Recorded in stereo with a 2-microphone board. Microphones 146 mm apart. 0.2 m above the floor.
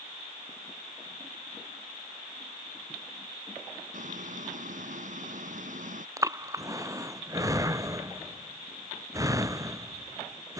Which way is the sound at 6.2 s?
20° right (ahead or behind).